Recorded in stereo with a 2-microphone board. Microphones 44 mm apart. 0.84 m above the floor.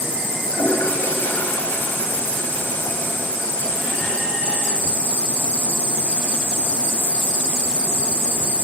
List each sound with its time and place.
0.5 s a toilet flushing: 45° left (ahead or behind), 5.5 m